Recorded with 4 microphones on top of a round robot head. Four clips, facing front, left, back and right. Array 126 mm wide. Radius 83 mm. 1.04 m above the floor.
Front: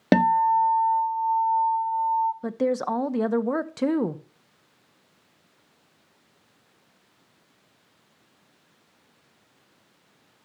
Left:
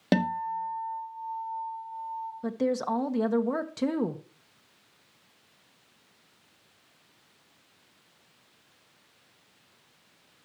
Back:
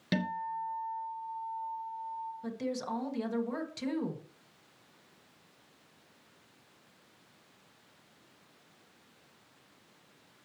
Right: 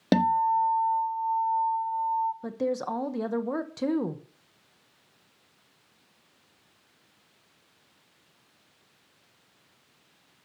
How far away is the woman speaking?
About 1.0 m.